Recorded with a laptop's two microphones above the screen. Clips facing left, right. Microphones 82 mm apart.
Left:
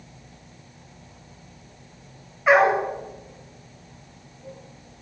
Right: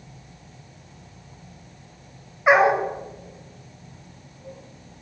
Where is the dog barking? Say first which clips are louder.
Even; 20° right (ahead or behind), 1.0 m.